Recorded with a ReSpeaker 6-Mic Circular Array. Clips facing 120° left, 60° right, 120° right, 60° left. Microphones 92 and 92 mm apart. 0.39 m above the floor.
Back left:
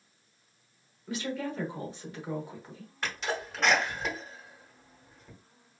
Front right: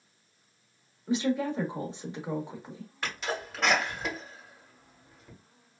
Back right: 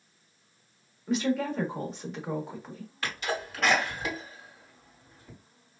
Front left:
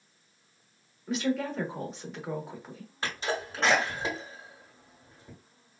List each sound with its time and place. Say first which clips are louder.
1.1 s a woman speaking: front right 6 dB, back right 2 dB; 25° right, 0.8 m
3.0 s a sneeze: back left 1 dB, front left 1 dB; 30° left, 1.5 m